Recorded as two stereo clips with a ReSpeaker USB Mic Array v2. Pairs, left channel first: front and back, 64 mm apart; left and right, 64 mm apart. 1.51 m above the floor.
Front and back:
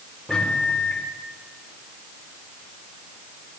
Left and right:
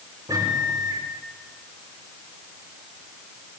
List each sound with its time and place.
0.3 s a microwave: 85° right, 5 m